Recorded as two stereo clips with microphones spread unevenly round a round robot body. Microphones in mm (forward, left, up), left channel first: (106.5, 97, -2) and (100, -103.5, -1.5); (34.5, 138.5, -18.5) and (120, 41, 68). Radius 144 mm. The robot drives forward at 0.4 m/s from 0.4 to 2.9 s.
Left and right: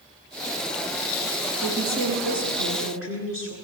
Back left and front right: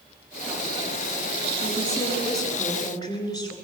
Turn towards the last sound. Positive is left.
turn(degrees=-135)